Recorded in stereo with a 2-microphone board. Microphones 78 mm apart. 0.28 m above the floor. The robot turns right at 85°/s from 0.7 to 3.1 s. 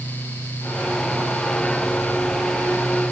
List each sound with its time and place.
Only background noise.